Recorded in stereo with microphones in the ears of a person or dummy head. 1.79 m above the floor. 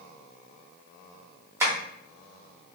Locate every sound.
1.6 s tapping: 15° right (ahead or behind), 0.9 m